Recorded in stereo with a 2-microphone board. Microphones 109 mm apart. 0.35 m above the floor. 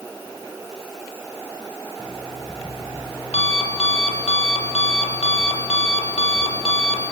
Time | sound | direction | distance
2.0 | an alarm clock | 65° left (ahead or behind) | 5 m